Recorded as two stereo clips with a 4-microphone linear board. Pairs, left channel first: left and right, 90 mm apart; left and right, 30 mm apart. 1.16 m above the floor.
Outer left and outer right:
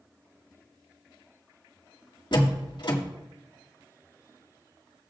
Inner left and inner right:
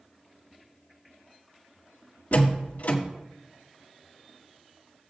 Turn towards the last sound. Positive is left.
turn(degrees=55)  # may be behind; listen again after turning